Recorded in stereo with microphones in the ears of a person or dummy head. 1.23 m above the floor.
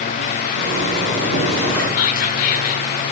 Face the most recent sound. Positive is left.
turn(degrees=50)  # may be behind; listen again after turning